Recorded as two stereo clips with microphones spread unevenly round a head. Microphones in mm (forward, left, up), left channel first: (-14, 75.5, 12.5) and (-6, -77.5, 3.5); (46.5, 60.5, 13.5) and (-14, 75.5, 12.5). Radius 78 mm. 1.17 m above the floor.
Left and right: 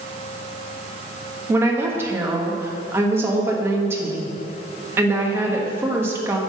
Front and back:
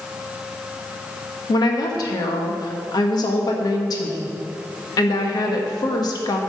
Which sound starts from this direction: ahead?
A woman speaking, at 1.5 s.